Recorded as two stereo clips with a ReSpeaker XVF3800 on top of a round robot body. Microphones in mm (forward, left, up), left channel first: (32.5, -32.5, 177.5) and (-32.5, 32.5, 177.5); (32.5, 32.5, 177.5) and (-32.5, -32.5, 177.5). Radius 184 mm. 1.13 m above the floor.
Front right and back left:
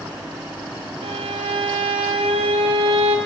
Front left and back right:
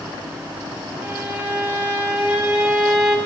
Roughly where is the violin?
Behind left.